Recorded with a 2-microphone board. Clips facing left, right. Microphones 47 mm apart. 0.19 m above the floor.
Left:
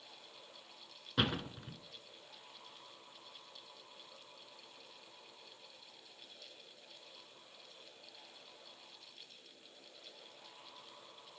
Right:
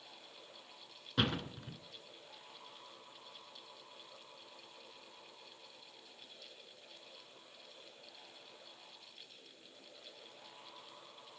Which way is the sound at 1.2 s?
5° left (ahead or behind).